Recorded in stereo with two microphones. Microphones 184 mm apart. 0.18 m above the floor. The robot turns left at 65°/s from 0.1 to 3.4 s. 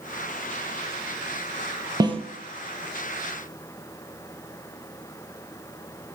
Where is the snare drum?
20° right (ahead or behind), 0.8 m; by 2.2 s 35° right (ahead or behind), 0.8 m.